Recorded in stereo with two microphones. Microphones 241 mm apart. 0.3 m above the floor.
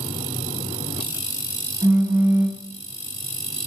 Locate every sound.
1.8 s a phone buzzing: 15° right (ahead or behind), 2 m